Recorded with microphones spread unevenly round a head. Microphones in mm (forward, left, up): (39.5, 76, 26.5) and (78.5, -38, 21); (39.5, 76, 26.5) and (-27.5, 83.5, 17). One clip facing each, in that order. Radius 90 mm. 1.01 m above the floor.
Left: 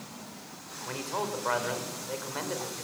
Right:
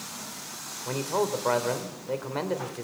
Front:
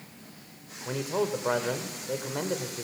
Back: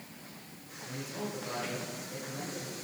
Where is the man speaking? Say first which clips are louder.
Right 6 dB, front 11 dB; 15° right, 4 m.